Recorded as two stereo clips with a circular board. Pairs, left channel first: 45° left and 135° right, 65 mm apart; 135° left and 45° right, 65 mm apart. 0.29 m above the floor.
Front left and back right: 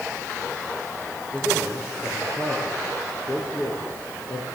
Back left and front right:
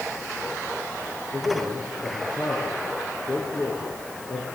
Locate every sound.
1.3 s a man speaking: 75° left, 7.5 m